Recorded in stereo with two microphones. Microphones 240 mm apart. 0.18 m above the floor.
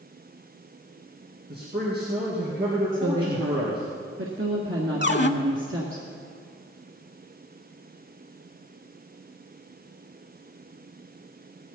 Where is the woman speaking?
60° right (ahead or behind), 2 m.